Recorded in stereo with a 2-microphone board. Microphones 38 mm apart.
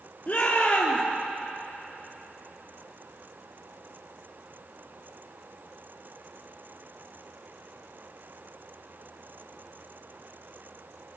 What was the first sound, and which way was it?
A shout, 40° left (ahead or behind).